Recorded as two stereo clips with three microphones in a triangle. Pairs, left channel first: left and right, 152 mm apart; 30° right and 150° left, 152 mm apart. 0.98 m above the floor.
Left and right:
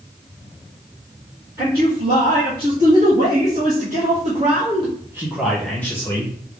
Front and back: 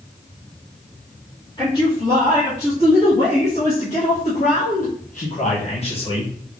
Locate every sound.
1.6 s a man speaking: 85° right, 2 m; by 6.3 s 25° left, 1.0 m